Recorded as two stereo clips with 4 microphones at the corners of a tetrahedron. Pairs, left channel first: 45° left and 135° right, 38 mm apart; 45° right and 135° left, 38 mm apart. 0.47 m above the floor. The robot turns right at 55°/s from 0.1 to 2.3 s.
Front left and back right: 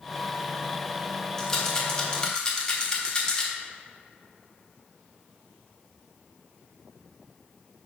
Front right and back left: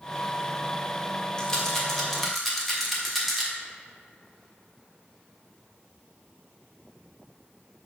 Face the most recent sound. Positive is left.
turn(degrees=45)